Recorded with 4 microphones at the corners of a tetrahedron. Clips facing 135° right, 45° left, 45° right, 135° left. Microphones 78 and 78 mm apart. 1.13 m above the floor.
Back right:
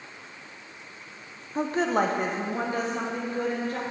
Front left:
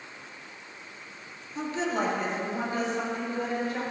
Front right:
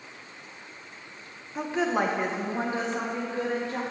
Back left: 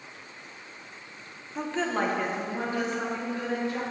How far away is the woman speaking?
About 0.5 m.